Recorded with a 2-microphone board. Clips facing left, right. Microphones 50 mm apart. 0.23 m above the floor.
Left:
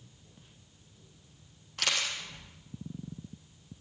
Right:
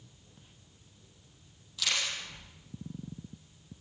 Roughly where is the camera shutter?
Left.